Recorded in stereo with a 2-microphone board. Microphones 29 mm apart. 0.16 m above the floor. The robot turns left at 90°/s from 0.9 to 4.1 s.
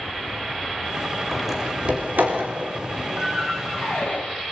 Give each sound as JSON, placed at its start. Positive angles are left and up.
{"t": 1.3, "sound": "a door slam", "side_deg": 10, "distance_m": 8.5}